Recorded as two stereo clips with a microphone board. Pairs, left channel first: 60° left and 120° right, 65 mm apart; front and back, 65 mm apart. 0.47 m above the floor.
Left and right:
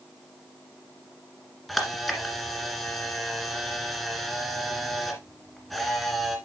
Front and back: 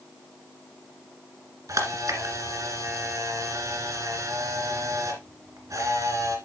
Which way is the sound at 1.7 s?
150° left.